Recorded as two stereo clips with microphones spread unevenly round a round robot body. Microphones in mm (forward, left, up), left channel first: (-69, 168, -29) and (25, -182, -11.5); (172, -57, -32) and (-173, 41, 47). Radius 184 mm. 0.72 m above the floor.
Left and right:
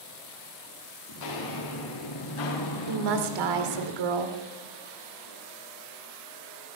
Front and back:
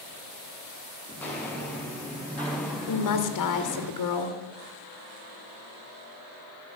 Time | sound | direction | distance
1.1 | footsteps | 70° left | 4 m
2.9 | a woman speaking | 45° right | 2 m